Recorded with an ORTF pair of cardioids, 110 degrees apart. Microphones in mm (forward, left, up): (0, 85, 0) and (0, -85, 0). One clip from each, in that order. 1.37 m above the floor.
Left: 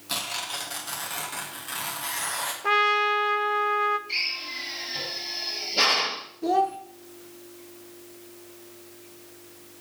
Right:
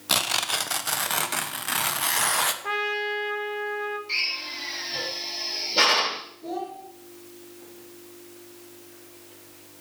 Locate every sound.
0.1 s tearing paper: 45° right, 0.9 m
2.6 s a trumpet: 30° left, 0.6 m
4.1 s a drill: 40° right, 5 m
6.4 s a child speaking: 60° left, 1.1 m